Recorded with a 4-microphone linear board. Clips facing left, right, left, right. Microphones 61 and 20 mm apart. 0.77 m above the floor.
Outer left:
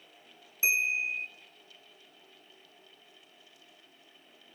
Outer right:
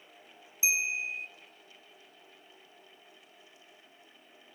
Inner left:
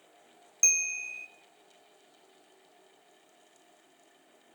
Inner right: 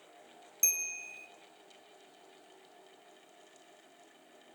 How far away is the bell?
About 0.6 m.